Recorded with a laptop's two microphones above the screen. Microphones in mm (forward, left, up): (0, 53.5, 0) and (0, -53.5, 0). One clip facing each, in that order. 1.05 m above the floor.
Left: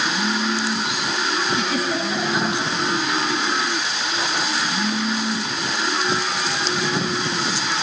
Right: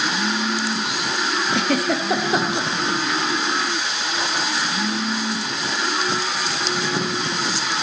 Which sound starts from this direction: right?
A giggle, at 1.5 s.